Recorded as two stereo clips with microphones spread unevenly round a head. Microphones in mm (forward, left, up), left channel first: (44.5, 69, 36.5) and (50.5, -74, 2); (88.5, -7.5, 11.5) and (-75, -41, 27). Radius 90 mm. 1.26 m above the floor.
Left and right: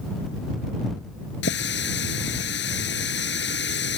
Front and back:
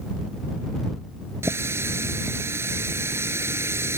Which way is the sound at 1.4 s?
115° left.